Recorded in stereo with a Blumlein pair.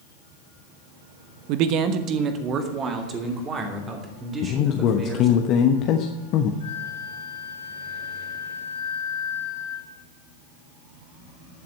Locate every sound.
1.5 s a man speaking: 45° right, 0.9 m; by 5.4 s 20° right, 4 m
4.4 s a man speaking: 35° left, 1.0 m
6.6 s a flute: 70° left, 3.5 m